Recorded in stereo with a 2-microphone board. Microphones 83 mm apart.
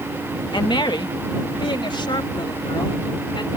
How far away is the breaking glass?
No breaking glass in this recording.